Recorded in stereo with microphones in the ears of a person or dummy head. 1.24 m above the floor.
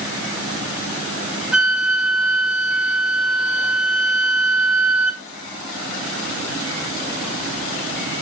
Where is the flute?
5° right (ahead or behind), 1.6 m.